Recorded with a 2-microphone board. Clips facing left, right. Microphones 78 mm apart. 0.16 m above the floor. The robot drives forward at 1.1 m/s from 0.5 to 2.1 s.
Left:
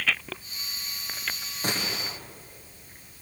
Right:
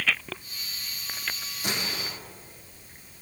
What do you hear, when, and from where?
1.6 s a gunshot: 40° left (ahead or behind), 5 m; by 2.2 s 35° left (ahead or behind), 5.5 m